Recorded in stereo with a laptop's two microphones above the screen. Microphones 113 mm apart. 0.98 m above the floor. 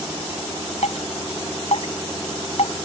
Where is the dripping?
70° left (ahead or behind).